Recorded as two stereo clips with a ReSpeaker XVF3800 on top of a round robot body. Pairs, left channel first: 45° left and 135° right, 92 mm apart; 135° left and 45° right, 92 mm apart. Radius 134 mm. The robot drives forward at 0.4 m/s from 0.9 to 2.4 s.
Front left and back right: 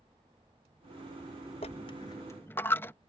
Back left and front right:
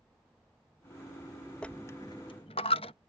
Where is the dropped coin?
55° left; by 2.9 s 110° left.